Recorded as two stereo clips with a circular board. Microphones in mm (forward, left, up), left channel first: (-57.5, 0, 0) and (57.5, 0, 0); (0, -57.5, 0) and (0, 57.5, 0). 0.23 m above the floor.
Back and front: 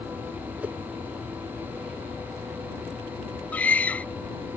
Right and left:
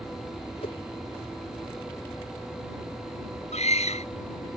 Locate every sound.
0.6 s a whoosh: 75° right
3.5 s a scream: 105° right